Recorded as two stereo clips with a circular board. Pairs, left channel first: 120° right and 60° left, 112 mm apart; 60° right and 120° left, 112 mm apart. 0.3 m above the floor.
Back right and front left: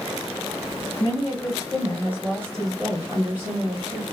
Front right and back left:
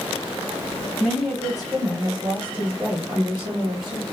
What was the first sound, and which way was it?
A woman speaking, 140° right.